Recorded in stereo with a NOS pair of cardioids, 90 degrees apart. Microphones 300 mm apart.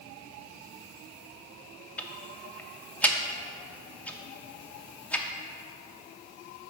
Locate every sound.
2.0 s ticking: 5° left, 0.6 m